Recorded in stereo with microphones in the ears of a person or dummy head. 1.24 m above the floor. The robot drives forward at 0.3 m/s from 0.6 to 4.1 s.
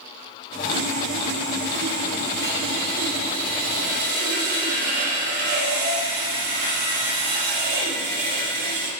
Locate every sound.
0.7 s sawing: 70° right (ahead or behind), 2.5 m; by 8.9 s 50° right (ahead or behind), 3 m